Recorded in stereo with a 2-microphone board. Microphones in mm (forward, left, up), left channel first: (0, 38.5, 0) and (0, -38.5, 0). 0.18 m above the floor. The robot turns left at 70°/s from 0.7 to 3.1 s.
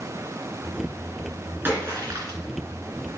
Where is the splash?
30° right, 2.5 m; by 2.4 s 85° right, 2.5 m.